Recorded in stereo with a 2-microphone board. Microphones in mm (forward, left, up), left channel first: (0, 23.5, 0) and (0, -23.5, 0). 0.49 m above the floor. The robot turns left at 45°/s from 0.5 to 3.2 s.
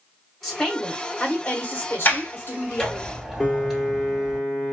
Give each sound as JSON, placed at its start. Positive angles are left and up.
{"t": 0.4, "sound": "a woman speaking", "azimuth_deg": 175, "distance_m": 1.1}
{"t": 2.0, "sound": "a sliding door", "side_deg": 45, "distance_m": 1.1}
{"t": 3.4, "sound": "a piano", "side_deg": 15, "distance_m": 1.6}